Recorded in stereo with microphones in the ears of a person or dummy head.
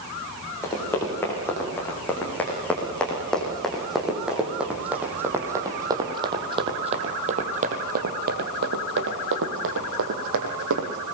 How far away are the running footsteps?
About 9 m.